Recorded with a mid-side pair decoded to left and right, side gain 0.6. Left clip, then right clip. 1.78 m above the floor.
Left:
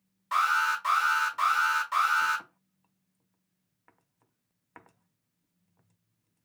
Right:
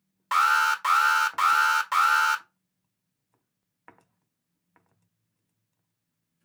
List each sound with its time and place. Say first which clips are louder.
0.3 s an alarm: right 4 dB; 55° right, 1.4 m